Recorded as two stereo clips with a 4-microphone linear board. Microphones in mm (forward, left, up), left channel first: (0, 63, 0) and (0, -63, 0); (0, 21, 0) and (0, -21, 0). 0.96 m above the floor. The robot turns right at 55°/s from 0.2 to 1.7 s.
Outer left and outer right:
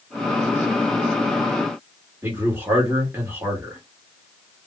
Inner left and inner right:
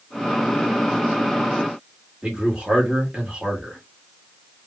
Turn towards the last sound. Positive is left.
turn(degrees=-20)  # may be behind; listen again after turning